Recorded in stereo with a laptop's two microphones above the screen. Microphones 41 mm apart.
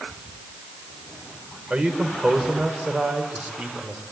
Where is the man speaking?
25° right (ahead or behind), 3.5 m.